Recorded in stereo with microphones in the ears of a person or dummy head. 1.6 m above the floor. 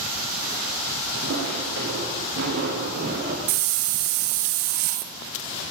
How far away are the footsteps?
About 7 m.